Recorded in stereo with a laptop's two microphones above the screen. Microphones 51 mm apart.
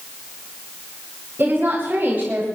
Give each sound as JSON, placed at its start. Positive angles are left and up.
{"t": 1.4, "sound": "a woman speaking", "side_deg": -45, "distance_m": 7.5}